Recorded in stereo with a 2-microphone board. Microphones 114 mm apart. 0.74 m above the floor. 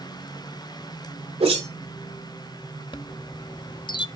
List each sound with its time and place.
1.4 s a whoosh: 65° right (ahead or behind), 2.5 m
2.9 s a chime: 40° left (ahead or behind), 0.6 m